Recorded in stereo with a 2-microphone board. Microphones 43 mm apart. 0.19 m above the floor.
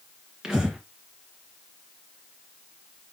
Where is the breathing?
15° right (ahead or behind), 3 m.